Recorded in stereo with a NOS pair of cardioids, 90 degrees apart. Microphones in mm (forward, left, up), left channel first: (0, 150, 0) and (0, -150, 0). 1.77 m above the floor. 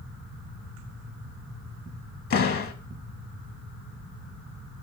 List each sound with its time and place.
2.3 s a door slam: 50° left, 2 m